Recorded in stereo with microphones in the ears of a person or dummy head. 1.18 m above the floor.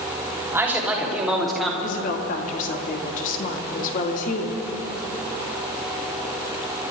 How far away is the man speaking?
About 3 m.